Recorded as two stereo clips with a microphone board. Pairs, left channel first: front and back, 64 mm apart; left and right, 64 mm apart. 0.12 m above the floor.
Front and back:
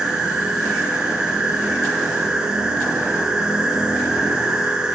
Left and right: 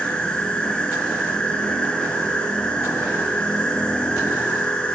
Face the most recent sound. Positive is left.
turn(degrees=130)